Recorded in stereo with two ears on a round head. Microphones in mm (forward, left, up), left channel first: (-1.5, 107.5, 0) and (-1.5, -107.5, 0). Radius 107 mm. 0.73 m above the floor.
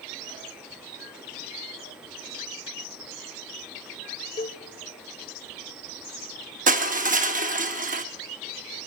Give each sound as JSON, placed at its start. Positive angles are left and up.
{"t": 4.4, "sound": "a cowbell", "side_deg": 20, "distance_m": 0.6}
{"t": 6.7, "sound": "crushing", "side_deg": -35, "distance_m": 0.8}